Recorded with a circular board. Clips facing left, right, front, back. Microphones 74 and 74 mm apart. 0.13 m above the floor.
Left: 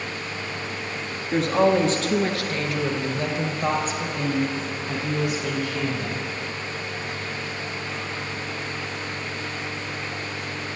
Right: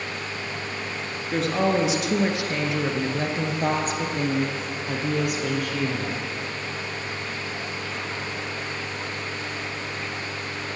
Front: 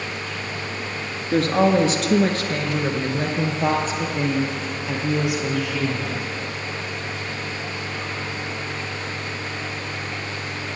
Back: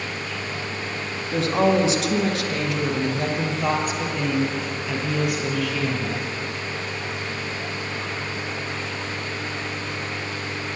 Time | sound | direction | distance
1.3 | a woman speaking | 5° left | 1.6 m